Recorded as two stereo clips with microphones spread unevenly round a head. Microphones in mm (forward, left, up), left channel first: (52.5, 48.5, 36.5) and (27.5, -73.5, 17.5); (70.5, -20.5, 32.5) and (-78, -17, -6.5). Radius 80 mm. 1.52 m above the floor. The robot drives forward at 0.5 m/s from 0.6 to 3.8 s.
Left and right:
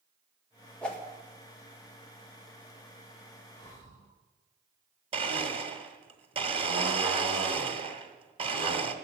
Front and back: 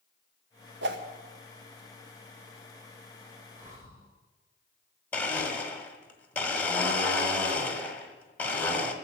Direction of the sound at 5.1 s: 60° right.